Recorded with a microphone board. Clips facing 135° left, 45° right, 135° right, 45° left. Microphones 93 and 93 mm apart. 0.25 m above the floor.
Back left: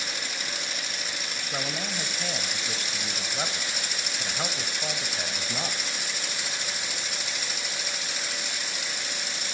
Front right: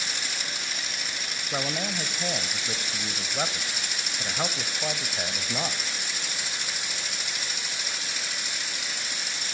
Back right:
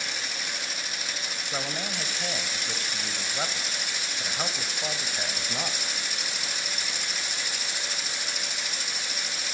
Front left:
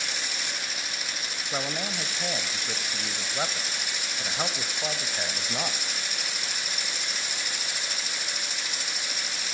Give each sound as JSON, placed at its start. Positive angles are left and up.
{"t": 1.5, "sound": "a man speaking", "azimuth_deg": -15, "distance_m": 0.9}